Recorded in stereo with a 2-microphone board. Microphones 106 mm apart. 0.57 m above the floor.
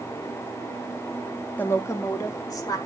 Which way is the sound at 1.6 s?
15° left (ahead or behind).